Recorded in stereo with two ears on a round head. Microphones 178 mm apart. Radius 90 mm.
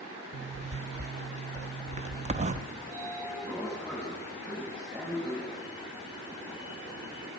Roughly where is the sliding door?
Centre.